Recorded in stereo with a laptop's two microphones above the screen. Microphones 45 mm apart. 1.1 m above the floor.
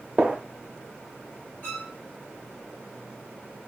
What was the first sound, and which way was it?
A gunshot, 20° right (ahead or behind).